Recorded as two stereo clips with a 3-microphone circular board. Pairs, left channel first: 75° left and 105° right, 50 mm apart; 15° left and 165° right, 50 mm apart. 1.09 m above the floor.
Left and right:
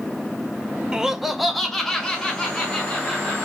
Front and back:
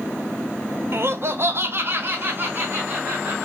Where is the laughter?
Straight behind, 0.5 m; by 3.5 s 145° left, 1.7 m.